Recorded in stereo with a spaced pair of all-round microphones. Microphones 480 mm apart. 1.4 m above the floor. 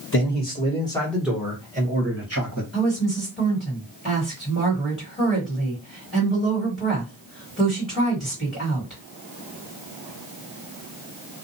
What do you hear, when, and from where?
0.1 s a man speaking: 25° left (ahead or behind), 1.5 m; by 2.6 s 35° right (ahead or behind), 1.4 m
2.7 s a woman speaking: 10° left (ahead or behind), 1.6 m